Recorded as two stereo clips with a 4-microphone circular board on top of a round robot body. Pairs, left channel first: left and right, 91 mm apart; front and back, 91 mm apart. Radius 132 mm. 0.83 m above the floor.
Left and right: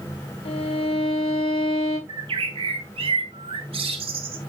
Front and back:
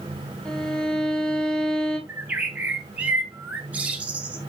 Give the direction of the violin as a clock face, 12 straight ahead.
9 o'clock.